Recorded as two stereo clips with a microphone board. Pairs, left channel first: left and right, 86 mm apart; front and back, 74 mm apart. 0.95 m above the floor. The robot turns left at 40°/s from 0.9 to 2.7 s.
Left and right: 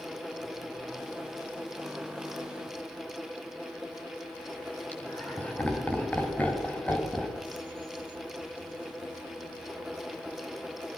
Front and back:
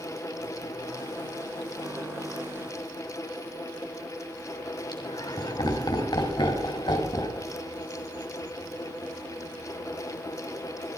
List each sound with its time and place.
4.9 s laughter: 15° left, 6.5 m